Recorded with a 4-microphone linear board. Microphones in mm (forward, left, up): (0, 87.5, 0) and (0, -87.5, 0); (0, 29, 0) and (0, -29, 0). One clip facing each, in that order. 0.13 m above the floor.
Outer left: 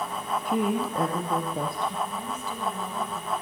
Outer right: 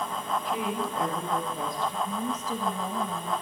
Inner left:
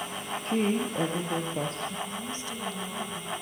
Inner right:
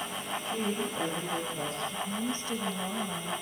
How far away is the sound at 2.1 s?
About 3 m.